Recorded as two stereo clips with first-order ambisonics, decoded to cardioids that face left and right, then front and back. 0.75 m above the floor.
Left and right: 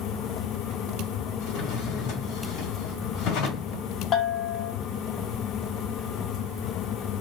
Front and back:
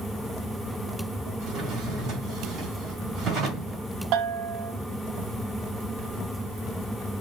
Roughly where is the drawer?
Behind left.